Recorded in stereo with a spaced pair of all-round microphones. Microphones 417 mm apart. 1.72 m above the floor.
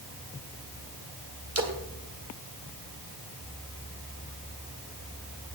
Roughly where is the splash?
Right.